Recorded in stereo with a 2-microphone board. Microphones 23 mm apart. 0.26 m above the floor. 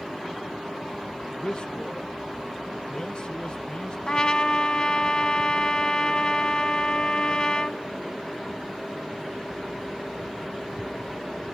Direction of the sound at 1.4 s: 35° left (ahead or behind).